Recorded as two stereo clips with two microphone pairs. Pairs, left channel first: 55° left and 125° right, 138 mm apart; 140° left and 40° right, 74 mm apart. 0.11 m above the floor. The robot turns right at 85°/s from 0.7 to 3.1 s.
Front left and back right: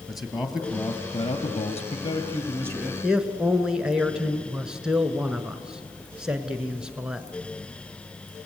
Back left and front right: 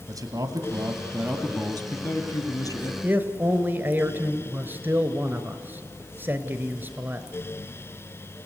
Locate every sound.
0.1 s a man speaking: 35° right, 2 m; by 2.9 s 155° left, 2 m
3.0 s a man speaking: 50° right, 1.1 m; by 7.3 s 45° right, 1.1 m